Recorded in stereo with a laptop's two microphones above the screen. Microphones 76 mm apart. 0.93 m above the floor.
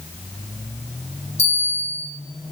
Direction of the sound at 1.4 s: 40° left (ahead or behind).